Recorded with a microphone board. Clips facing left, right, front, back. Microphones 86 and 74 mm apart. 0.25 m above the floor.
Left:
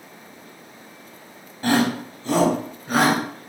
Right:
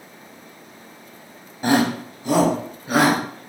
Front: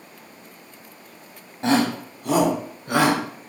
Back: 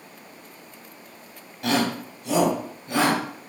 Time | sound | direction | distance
1.6 | a shout | 30° right | 1.3 m